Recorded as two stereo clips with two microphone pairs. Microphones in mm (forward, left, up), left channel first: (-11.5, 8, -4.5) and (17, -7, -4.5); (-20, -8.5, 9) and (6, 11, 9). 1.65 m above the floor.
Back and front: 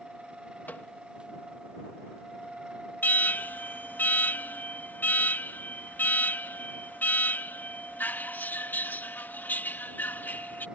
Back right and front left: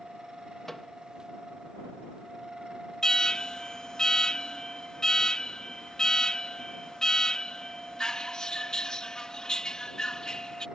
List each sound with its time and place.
0.7 s a microwave: 140° left
3.0 s an alarm: 150° left